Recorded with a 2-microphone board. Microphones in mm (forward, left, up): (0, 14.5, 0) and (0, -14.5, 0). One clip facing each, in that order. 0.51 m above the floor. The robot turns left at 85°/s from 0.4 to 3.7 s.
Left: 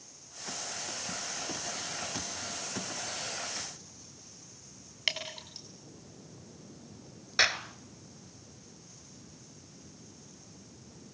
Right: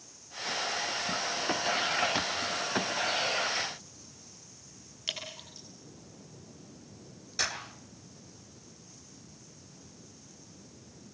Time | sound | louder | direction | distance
5.1 | dripping | left 4 dB | 75° left (ahead or behind) | 7.5 m
7.4 | a clap | left 7 dB | 45° left (ahead or behind) | 1.6 m